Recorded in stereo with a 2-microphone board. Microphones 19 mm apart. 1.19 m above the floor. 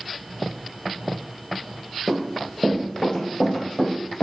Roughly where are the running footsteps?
Left.